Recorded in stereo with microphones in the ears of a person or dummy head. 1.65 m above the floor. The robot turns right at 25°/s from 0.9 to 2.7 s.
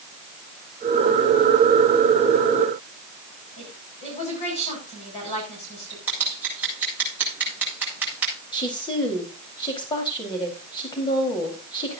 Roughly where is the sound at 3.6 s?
Left.